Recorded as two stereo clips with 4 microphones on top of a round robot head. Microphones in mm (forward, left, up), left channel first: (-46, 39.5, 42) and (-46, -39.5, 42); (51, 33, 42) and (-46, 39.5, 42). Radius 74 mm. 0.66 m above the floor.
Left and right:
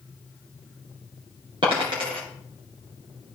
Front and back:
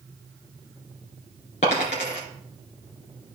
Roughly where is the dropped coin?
Ahead right.